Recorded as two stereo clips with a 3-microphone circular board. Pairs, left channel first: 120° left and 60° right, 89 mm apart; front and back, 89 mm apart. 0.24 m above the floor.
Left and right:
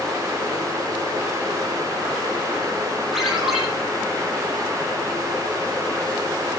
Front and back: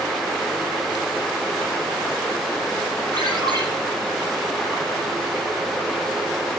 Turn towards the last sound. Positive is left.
turn(degrees=-145)